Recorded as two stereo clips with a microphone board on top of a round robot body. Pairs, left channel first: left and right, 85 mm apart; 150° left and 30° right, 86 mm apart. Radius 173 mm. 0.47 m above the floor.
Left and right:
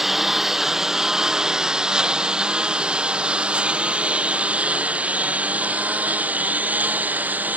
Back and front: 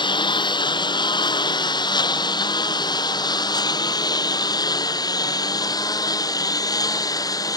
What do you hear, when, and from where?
0.0 s a lawn mower: 175° right; by 7.6 s 160° right